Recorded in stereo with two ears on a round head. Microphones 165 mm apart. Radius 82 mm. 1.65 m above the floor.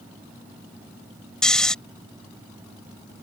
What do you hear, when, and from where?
1.4 s snoring: 5° left (ahead or behind)